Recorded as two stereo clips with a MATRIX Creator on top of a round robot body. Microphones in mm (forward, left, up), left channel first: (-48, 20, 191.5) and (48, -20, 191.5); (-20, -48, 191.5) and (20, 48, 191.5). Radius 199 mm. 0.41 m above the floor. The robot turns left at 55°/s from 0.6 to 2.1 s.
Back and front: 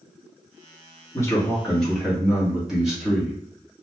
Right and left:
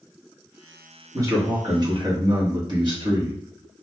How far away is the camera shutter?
I don't hear a camera shutter.